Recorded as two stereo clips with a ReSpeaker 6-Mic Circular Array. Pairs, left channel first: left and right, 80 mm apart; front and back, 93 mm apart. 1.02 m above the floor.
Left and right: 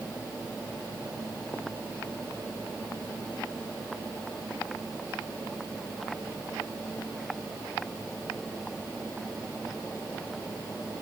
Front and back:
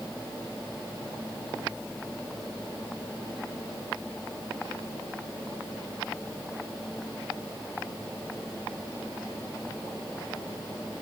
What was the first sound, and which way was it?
Only background noise.